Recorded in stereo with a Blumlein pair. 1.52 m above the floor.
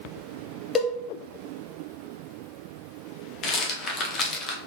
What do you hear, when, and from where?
0.8 s a cowbell: 20° left, 0.5 m
3.4 s a rattle: 30° left, 0.6 m